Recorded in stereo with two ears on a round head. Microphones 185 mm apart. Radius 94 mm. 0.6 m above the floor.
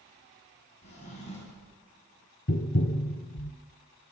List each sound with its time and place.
0.8 s a drawer: 35° left (ahead or behind), 2 m
2.5 s tapping: 45° left (ahead or behind), 0.6 m